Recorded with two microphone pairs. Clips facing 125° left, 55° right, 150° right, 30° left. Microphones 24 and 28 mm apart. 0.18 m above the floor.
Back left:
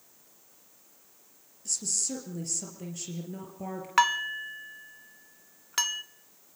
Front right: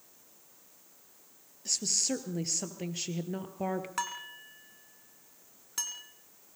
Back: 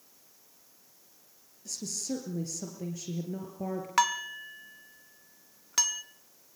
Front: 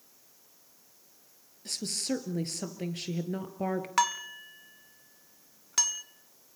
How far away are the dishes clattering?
About 1.0 m.